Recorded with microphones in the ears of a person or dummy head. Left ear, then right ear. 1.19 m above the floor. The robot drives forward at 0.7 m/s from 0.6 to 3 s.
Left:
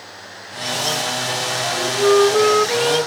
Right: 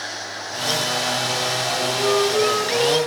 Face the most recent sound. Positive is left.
turn(degrees=55)  # may be behind; listen again after turning